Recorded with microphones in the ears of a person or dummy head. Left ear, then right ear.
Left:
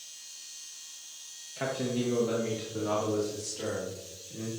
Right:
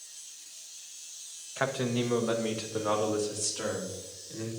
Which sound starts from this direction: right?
A man speaking, at 1.6 s.